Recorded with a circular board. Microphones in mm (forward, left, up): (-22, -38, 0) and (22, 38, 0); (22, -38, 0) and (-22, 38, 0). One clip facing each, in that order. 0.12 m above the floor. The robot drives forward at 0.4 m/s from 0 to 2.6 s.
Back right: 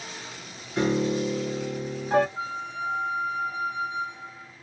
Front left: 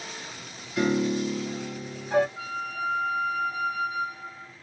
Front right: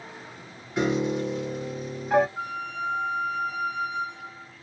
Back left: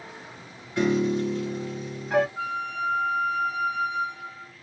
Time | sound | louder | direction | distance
0.8 | a piano | even, back left 2 dB | 110° right | 1.4 m
2.4 | a flute | even, back left 2 dB | 140° right | 0.5 m